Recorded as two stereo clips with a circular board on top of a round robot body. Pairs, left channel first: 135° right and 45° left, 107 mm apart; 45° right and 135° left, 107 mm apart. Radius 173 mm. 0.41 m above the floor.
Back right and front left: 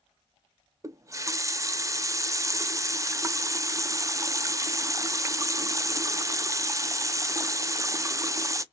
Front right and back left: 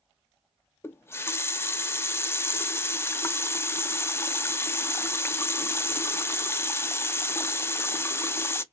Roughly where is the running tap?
Ahead.